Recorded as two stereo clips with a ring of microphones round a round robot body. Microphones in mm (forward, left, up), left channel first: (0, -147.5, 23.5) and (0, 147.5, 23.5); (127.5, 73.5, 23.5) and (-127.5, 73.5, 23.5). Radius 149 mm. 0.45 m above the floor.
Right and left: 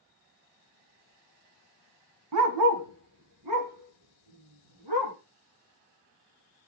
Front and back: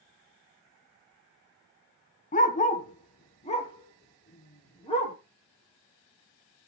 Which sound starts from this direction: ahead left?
A dog barking, at 2.3 s.